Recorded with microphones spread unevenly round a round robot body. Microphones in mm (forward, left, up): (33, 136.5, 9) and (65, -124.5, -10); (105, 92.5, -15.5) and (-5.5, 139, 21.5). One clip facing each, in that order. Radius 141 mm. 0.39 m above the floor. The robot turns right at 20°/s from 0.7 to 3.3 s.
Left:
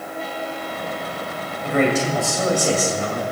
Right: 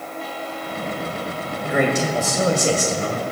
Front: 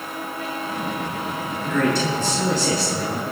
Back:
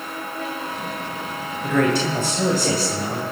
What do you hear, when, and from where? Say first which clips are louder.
1.6 s a man speaking: left 1 dB, back 2 dB; 160° right, 2 m; by 3.2 s 130° right, 2 m